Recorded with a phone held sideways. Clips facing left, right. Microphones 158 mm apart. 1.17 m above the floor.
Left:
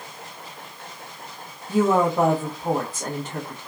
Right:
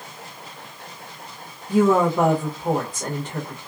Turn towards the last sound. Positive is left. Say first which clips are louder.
# right 2 dB
turn(degrees=10)  # may be behind; listen again after turning